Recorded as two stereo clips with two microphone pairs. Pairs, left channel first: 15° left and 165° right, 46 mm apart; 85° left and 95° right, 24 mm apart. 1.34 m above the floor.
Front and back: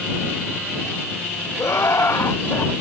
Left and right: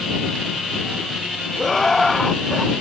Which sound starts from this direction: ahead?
Laughter, at 1.6 s.